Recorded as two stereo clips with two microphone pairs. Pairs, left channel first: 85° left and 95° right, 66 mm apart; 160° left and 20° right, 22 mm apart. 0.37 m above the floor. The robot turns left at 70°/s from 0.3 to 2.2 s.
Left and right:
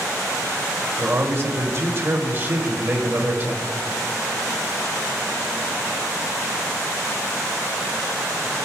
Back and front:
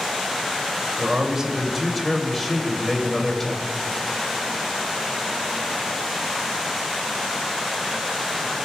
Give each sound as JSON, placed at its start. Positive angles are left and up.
{"t": 1.0, "sound": "a man speaking", "azimuth_deg": -50, "distance_m": 1.8}